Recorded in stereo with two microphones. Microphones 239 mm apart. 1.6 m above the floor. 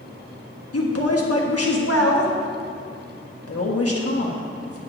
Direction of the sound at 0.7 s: 75° left (ahead or behind).